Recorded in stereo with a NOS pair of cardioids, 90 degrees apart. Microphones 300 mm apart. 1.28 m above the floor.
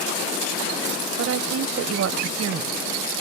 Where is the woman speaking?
50° right.